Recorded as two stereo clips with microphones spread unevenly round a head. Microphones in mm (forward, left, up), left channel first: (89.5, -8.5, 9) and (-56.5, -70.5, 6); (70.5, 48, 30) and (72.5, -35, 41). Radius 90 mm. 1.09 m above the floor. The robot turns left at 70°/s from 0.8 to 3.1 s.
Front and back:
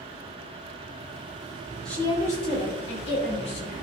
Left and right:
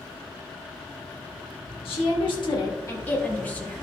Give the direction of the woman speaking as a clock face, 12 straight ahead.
8 o'clock.